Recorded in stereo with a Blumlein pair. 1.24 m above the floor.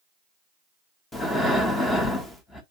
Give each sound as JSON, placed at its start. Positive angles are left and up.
{"t": 1.1, "sound": "breathing", "azimuth_deg": 10, "distance_m": 1.0}